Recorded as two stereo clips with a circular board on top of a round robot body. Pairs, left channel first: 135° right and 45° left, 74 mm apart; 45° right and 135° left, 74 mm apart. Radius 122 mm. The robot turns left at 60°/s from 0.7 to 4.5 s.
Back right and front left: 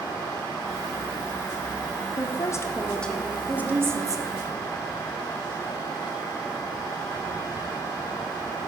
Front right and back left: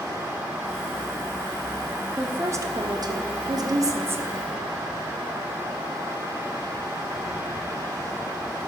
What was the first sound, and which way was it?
A woman speaking, 160° right.